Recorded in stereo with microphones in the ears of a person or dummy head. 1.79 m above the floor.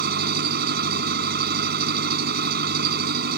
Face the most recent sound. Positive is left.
turn(degrees=-50)  # may be behind; listen again after turning